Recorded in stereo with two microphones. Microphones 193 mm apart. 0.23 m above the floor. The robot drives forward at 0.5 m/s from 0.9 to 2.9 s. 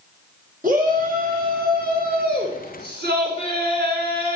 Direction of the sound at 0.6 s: 45° right (ahead or behind).